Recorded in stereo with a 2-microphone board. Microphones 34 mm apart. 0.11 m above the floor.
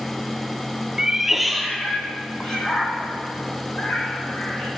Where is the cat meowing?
25° right (ahead or behind), 0.6 m; by 4.7 s 35° left (ahead or behind), 2 m.